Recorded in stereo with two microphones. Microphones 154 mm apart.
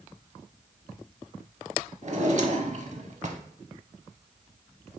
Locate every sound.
2.0 s a drawer: 50° right (ahead or behind), 0.6 m